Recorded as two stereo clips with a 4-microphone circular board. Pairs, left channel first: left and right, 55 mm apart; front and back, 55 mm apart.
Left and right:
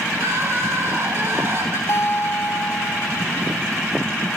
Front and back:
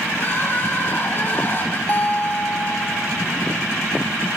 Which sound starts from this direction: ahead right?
Crying, at 0.1 s.